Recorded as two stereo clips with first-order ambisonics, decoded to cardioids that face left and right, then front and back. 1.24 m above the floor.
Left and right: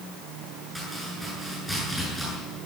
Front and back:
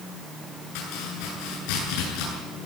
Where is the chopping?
Straight ahead, 8.5 m.